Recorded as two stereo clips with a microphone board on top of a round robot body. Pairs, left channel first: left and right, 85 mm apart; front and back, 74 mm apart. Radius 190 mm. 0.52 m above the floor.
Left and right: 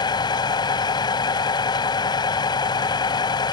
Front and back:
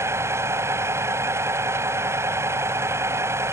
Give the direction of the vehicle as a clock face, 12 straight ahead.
8 o'clock.